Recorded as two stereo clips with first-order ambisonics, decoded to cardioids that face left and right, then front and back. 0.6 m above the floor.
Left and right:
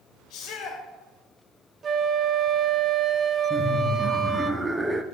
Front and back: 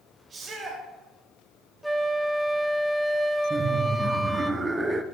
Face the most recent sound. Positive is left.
turn(degrees=-145)